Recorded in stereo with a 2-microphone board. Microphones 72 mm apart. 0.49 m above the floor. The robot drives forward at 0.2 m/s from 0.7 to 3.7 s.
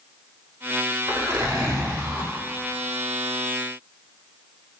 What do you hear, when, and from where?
1.1 s a zipper: 70° right (ahead or behind), 1.1 m; by 2.3 s 65° right (ahead or behind), 1.1 m